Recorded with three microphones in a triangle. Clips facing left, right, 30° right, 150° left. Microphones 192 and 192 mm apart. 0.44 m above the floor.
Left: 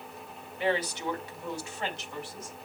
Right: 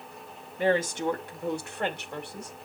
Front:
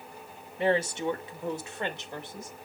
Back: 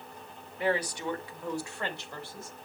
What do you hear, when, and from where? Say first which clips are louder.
0.6 s a woman speaking: right 4 dB, front 4 dB; 80° right, 1.0 m; by 2.5 s 100° right, 1.8 m